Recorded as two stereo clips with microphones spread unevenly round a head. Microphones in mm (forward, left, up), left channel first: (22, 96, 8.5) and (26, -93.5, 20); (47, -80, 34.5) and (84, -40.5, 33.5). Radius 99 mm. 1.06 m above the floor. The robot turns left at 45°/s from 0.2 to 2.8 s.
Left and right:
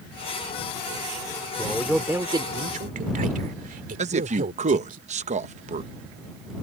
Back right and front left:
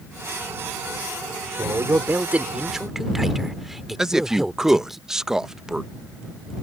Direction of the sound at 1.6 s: 15° left.